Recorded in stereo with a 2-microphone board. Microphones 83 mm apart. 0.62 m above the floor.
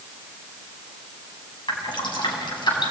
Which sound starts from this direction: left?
Dripping, at 1.7 s.